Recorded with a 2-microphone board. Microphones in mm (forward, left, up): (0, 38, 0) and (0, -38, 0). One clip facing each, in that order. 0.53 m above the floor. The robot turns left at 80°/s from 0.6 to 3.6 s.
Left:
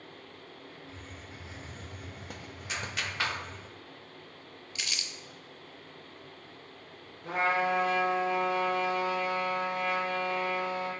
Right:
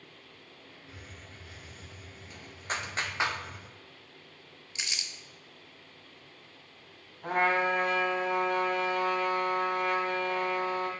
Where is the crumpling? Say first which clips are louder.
Even; 25° right (ahead or behind), 0.7 m.